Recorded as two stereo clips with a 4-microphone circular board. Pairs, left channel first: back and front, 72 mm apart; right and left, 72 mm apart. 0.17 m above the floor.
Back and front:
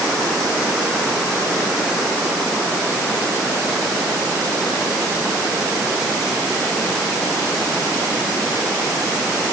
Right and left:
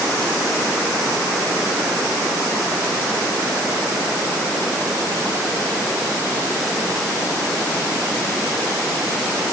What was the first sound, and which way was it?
Only background noise.